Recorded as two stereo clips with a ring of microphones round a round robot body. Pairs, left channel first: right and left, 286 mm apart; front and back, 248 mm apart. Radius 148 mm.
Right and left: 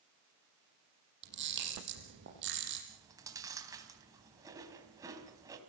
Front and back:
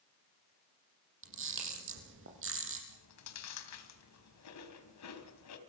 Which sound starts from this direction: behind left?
A camera shutter, at 1.2 s.